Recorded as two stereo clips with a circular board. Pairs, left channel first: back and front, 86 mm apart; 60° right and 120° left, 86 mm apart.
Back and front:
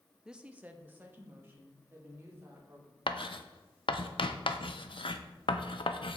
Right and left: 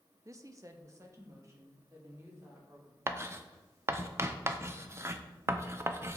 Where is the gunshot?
I don't hear a gunshot.